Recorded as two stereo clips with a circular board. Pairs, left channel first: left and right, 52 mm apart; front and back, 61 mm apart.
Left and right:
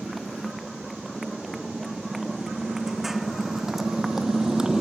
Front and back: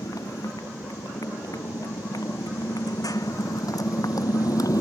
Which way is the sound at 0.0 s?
Straight ahead.